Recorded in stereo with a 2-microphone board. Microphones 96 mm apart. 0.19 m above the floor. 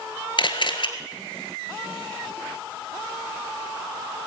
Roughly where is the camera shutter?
Left.